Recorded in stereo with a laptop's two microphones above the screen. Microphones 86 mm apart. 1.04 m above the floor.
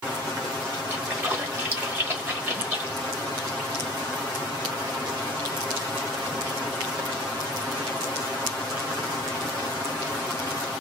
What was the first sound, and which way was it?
A splash, 25° right (ahead or behind).